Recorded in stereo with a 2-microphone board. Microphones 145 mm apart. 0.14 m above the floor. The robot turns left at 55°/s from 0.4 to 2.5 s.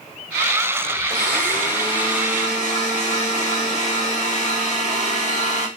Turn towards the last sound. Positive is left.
turn(degrees=110)